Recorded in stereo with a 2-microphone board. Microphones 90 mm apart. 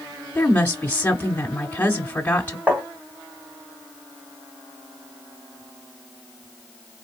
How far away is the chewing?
I don't hear chewing.